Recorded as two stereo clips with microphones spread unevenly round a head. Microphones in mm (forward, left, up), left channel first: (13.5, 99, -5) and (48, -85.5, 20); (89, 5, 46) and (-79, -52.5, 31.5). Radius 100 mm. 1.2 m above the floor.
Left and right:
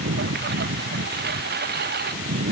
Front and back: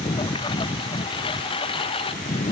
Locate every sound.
0.0 s a lawn mower: 45° right; by 2.5 s 40° right